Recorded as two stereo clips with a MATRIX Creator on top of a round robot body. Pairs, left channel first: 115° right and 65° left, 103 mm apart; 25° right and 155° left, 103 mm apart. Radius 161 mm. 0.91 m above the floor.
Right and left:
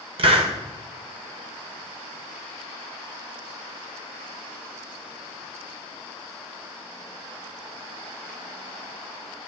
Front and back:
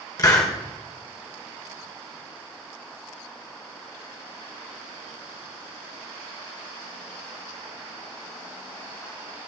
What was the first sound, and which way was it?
A hiss, 35° left.